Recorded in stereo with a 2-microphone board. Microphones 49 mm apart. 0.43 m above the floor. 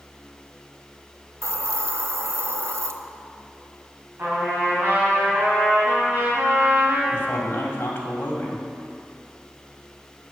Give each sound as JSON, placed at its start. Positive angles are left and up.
{"t": 1.4, "sound": "a hiss", "side_deg": -80, "distance_m": 0.7}
{"t": 4.2, "sound": "a trumpet", "side_deg": -45, "distance_m": 4.0}
{"t": 7.1, "sound": "a man speaking", "side_deg": 40, "distance_m": 2.5}